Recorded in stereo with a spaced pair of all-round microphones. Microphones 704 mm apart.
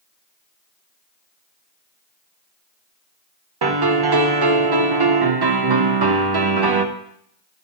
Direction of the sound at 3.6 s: 35° right (ahead or behind).